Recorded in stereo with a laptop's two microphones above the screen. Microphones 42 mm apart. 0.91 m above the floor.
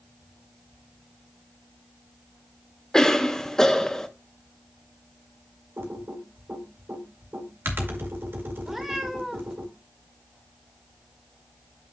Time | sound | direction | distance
2.9 | a cough | 15° left (ahead or behind) | 0.9 m
5.8 | typing on a keyboard | 65° right (ahead or behind) | 1.9 m
8.7 | a cat meowing | 10° right (ahead or behind) | 1.6 m